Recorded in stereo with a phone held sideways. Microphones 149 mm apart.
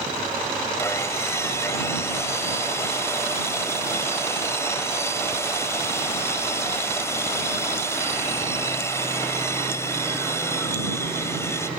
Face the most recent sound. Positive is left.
turn(degrees=20)  # may be behind; listen again after turning